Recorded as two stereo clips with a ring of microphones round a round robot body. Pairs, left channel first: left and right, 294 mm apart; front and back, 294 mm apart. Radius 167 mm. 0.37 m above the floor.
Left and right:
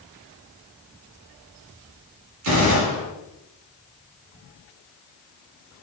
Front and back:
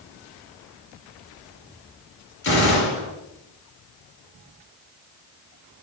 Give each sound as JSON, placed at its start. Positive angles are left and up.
{"t": 2.4, "sound": "a gunshot", "azimuth_deg": -50, "distance_m": 1.9}